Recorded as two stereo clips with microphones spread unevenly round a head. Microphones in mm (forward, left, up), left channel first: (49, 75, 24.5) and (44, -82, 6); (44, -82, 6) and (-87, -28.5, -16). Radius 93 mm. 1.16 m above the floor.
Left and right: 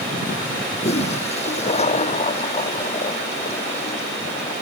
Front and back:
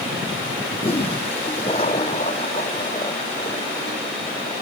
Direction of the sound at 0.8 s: 40° left.